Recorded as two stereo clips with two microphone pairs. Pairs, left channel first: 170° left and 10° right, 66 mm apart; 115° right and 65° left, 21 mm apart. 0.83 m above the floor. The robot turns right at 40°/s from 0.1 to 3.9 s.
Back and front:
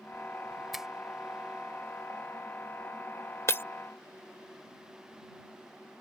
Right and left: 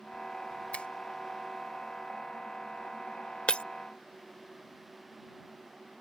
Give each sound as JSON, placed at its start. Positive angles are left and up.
{"t": 0.7, "sound": "a finger snap", "azimuth_deg": -95}
{"t": 3.5, "sound": "breaking glass", "azimuth_deg": -140}